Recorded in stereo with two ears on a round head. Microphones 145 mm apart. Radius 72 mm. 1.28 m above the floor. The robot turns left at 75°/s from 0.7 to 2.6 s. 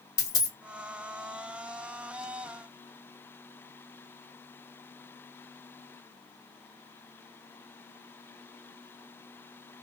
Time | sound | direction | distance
0.2 | a dropped coin | 20° left (ahead or behind) | 1.0 m